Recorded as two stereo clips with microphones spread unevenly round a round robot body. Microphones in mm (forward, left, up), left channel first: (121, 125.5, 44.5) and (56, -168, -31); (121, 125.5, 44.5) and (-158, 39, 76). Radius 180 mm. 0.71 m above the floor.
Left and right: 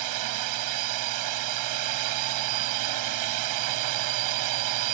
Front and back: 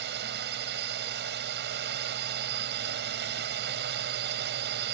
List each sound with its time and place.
0.0 s a drone: 100° right